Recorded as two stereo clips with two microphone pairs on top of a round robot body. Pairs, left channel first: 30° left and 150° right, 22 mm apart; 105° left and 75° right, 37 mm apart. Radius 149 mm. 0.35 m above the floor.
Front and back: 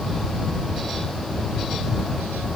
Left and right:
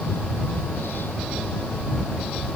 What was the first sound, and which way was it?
Only background noise.